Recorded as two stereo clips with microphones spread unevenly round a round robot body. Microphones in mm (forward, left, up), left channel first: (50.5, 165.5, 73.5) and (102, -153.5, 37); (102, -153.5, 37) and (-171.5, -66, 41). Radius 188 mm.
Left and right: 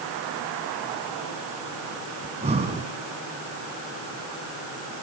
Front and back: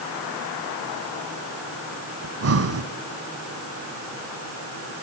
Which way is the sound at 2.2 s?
155° right.